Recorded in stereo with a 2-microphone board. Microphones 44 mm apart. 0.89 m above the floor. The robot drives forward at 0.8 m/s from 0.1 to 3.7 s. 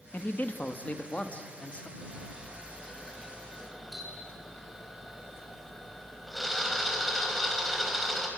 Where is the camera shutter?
Centre (ahead or behind), 5.5 m.